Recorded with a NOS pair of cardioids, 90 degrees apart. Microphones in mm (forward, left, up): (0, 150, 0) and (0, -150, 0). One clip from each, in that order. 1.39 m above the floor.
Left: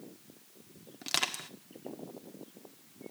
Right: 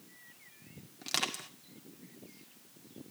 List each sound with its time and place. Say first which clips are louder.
1.0 s crushing: left 2 dB; 15° left, 1.9 m